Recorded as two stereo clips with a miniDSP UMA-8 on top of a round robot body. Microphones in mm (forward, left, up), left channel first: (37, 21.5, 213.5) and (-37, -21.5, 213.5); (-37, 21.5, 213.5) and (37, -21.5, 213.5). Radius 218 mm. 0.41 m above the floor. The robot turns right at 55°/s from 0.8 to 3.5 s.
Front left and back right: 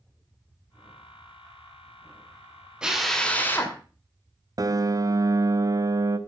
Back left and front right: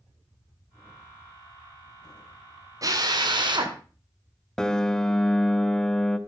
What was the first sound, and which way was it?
A drill, 70° right.